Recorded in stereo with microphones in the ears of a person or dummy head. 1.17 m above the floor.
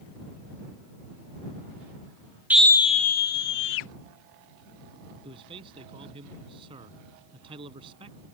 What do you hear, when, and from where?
2.5 s a scream: 10° right (ahead or behind); by 3.9 s 60° left (ahead or behind)
5.2 s a man speaking: 30° right (ahead or behind)